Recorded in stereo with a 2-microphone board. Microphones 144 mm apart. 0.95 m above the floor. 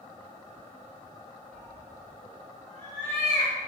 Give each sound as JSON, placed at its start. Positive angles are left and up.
{"t": 1.5, "sound": "a cat meowing", "side_deg": -60, "distance_m": 1.5}